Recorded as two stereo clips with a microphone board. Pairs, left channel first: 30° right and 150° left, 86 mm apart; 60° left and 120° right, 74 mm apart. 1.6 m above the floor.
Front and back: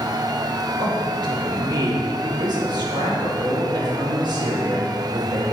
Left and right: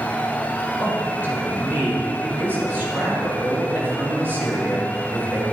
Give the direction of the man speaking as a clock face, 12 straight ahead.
6 o'clock.